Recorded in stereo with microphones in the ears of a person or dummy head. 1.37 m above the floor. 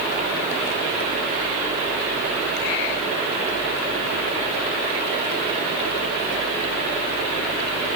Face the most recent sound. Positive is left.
No sound to turn to.